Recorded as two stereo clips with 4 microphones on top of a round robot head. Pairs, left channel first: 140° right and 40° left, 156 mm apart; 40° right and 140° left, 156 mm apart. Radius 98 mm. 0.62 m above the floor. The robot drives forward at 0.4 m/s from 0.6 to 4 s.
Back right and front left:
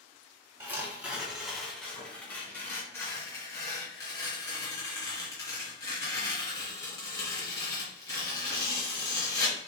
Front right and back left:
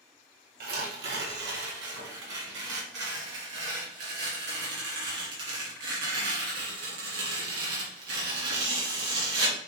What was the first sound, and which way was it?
Tearing paper, 115° left.